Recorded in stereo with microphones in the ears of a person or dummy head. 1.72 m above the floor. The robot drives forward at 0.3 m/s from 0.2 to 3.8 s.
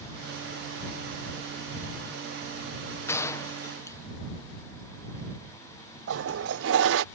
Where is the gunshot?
15° left (ahead or behind).